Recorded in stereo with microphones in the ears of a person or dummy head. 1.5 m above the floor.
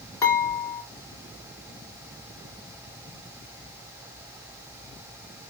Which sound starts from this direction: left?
Dishes clattering, at 0.2 s.